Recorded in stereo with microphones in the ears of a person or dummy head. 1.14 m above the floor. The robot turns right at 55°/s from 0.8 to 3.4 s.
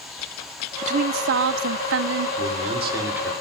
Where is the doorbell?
I don't hear a doorbell.